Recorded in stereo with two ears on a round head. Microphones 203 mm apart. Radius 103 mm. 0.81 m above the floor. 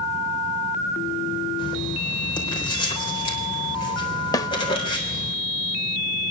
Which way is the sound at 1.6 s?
20° left (ahead or behind).